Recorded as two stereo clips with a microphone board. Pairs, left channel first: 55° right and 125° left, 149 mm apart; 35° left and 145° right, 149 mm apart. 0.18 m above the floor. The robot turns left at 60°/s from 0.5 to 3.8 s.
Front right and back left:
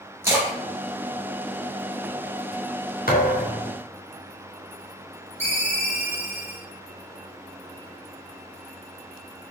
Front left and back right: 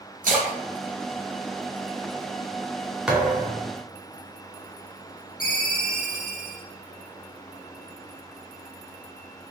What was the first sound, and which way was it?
A splash, 165° right.